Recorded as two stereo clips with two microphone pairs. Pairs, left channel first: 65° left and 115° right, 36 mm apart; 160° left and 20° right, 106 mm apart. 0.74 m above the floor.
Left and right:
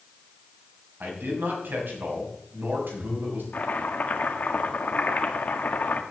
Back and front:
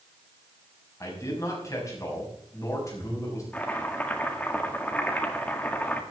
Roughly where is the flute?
No flute in this recording.